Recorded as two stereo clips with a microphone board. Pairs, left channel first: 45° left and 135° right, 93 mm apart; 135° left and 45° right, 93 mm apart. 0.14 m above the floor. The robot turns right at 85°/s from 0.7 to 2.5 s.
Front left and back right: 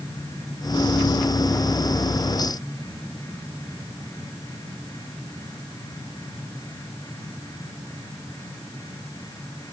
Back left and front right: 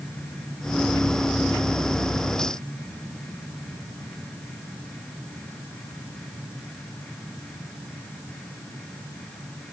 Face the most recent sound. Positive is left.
No sound to turn to.